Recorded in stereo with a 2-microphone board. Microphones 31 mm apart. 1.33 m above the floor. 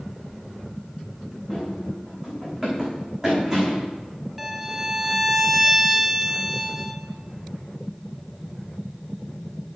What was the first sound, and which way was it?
Running footsteps, 25° right (ahead or behind).